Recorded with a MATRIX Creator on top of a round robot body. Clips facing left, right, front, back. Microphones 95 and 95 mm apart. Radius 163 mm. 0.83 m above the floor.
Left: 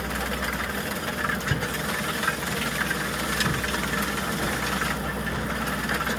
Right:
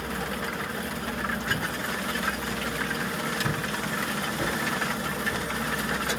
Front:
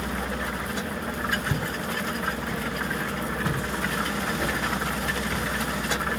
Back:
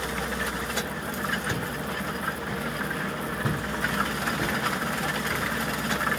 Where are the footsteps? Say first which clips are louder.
Left 1 dB, front 1 dB; 55° left, 1.1 m; by 5.4 s 160° right, 1.8 m.